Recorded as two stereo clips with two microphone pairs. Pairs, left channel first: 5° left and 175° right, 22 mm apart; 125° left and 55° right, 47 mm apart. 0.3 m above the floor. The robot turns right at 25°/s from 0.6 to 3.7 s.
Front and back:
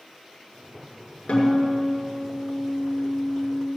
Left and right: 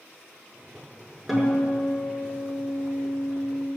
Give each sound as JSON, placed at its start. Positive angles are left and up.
{"t": 1.3, "sound": "a guitar", "azimuth_deg": 35, "distance_m": 5.5}